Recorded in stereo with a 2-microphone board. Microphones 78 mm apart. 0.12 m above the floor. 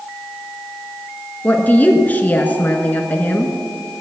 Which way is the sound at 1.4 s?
20° left (ahead or behind).